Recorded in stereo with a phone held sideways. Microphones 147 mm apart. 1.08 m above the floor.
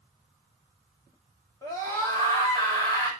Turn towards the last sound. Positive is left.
turn(degrees=25)  # may be behind; listen again after turning